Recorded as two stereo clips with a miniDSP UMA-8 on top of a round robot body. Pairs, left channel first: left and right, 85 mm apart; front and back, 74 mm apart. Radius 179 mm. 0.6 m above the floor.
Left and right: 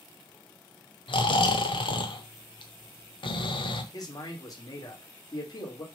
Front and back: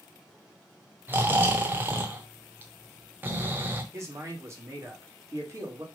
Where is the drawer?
No drawer in this recording.